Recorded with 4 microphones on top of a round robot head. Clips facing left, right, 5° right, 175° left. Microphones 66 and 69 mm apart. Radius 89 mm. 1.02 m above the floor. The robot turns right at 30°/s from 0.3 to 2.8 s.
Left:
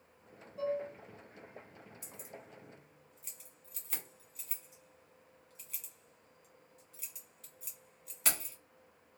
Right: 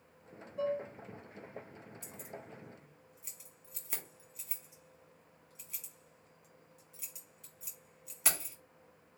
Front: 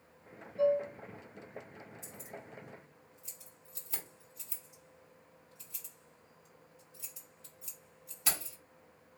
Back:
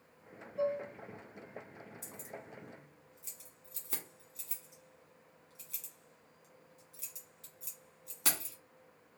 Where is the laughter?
No laughter in this recording.